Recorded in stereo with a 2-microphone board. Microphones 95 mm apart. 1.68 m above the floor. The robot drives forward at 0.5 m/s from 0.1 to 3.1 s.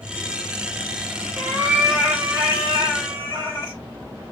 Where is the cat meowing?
30° right (ahead or behind), 1.5 m; by 3.8 s 25° right (ahead or behind), 2 m.